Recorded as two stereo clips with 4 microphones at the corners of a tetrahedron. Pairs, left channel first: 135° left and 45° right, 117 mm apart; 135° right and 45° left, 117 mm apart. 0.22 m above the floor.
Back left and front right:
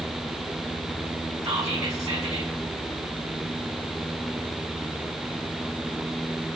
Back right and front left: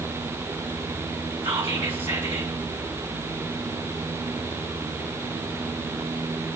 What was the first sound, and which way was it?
Whispering, 10° left.